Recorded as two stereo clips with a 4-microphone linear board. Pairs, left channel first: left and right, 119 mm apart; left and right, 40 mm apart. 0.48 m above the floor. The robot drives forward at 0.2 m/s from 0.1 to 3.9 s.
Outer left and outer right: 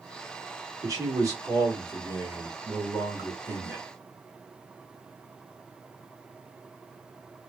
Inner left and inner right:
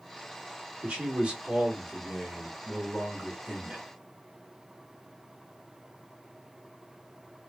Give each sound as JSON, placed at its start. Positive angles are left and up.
{"t": 0.8, "sound": "a man speaking", "side_deg": -30, "distance_m": 1.2}